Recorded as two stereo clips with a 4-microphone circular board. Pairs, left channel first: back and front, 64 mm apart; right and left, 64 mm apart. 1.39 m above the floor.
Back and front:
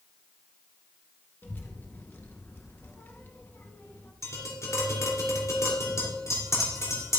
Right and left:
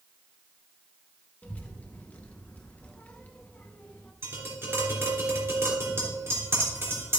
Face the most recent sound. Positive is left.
turn(degrees=140)